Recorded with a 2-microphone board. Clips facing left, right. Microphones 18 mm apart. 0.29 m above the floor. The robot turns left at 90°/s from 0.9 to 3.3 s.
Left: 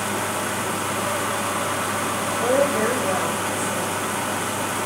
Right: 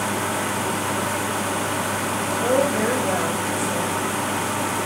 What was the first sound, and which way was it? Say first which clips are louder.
A woman speaking: left 1 dB; 55° left.